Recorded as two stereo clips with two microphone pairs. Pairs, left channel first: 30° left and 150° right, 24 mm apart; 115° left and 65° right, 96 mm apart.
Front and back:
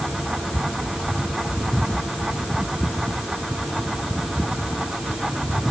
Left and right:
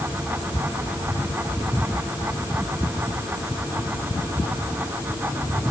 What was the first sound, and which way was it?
Only background noise.